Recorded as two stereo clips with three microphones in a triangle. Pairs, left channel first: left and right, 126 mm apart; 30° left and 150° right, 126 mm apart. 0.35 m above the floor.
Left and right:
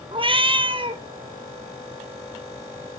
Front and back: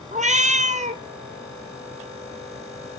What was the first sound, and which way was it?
A cat meowing, 135° right.